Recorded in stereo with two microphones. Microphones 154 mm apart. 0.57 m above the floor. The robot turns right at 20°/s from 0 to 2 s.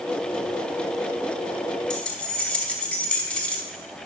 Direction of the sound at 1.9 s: 5° left (ahead or behind).